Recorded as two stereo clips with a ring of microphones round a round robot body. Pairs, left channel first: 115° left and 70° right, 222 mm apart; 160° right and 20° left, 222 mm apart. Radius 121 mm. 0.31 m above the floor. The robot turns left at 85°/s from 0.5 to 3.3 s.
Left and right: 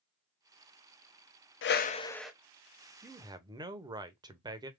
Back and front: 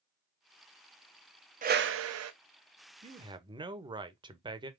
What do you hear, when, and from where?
1.6 s a whoosh: 80° left, 0.7 m; by 2.3 s 20° left, 0.7 m
3.0 s a man speaking: 5° left, 0.9 m; by 4.7 s 20° right, 0.9 m